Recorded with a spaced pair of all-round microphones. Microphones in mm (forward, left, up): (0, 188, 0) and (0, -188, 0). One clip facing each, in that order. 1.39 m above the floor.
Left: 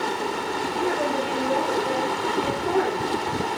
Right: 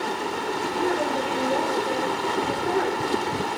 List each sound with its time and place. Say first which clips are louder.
0.7 s a woman speaking: even; 75° left (ahead or behind), 6 m; by 3.2 s 90° left, 5 m